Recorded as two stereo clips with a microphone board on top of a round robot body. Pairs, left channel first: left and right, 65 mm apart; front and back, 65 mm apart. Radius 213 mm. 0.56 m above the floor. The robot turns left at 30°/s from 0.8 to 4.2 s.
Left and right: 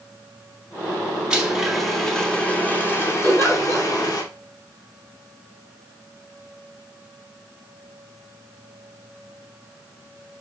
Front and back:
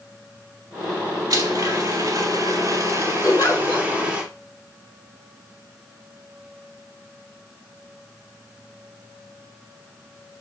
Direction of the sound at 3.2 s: 40° left.